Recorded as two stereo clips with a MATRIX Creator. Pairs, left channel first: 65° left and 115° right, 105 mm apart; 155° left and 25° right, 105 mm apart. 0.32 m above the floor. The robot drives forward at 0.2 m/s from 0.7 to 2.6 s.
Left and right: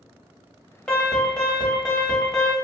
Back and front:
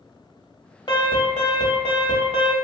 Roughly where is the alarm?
Behind left.